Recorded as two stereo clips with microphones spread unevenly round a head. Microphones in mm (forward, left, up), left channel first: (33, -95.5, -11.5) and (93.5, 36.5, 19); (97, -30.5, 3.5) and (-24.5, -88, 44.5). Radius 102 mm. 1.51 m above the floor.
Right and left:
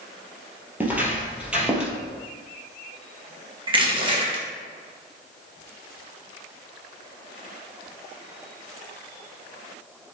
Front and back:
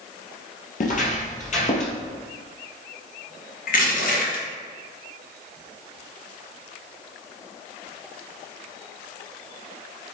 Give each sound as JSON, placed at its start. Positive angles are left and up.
{"t": 0.8, "sound": "footsteps", "azimuth_deg": 0, "distance_m": 2.5}
{"t": 3.7, "sound": "crushing", "azimuth_deg": 10, "distance_m": 2.0}